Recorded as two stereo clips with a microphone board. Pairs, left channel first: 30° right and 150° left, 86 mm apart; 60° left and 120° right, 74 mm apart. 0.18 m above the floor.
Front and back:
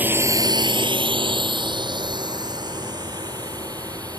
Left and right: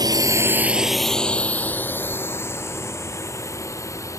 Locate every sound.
0.0 s a drone: 140° right; by 4.2 s 110° left